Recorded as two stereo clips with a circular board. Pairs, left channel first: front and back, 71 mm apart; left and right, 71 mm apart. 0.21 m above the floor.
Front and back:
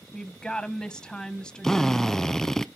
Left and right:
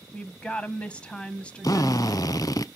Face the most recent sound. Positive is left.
turn(degrees=80)